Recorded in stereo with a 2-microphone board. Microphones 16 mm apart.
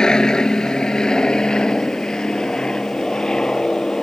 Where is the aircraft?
60° left (ahead or behind); by 4.0 s 65° left (ahead or behind).